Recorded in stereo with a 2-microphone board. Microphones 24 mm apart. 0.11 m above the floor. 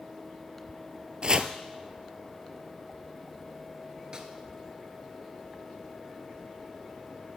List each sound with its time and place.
1.2 s chopping: 35° right (ahead or behind), 0.6 m
4.1 s a snare drum: 30° right (ahead or behind), 1.1 m